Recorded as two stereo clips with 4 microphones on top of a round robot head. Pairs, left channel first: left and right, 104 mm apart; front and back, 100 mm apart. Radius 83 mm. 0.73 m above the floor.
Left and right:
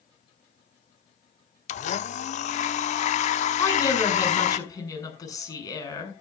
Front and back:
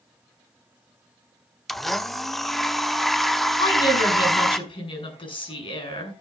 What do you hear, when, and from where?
1.7 s a blender: 90° left, 0.7 m
3.6 s a woman speaking: 35° left, 8 m